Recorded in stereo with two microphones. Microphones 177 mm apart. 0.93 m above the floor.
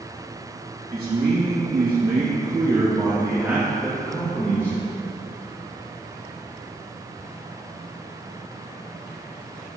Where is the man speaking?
60° right (ahead or behind), 2.5 m; by 4.8 s 15° left (ahead or behind), 3 m.